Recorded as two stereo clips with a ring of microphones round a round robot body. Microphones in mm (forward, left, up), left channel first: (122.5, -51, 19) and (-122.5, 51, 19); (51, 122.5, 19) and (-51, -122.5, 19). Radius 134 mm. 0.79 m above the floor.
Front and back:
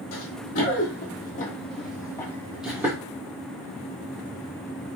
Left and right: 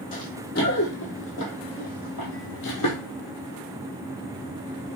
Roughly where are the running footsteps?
Ahead.